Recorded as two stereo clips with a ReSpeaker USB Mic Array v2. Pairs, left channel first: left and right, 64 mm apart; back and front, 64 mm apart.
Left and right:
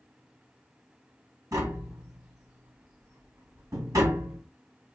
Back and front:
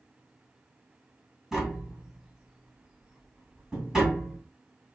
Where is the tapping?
80° right, 1.9 m.